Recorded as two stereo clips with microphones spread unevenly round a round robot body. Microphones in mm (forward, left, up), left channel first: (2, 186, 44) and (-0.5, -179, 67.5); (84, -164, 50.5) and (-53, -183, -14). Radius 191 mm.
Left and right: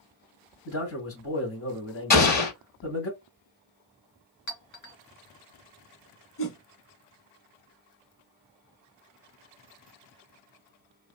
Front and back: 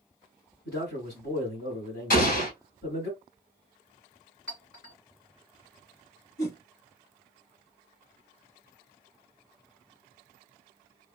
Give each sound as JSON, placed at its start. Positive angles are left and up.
{"t": 0.7, "sound": "a man speaking", "azimuth_deg": 40, "distance_m": 3.0}
{"t": 2.1, "sound": "an explosion", "azimuth_deg": 25, "distance_m": 2.5}
{"t": 4.5, "sound": "a clink", "azimuth_deg": 65, "distance_m": 2.0}
{"t": 6.4, "sound": "a whoosh", "azimuth_deg": 35, "distance_m": 1.3}